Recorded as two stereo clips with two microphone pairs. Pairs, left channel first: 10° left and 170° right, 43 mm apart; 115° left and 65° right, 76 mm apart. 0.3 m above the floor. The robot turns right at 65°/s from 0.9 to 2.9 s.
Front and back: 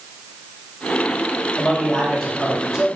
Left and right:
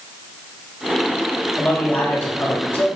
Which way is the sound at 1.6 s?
55° left.